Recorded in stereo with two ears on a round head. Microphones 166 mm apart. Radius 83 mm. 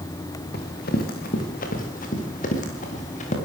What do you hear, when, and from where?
0.5 s running footsteps: 55° left (ahead or behind), 4.5 m; by 3.4 s 40° left (ahead or behind), 7.5 m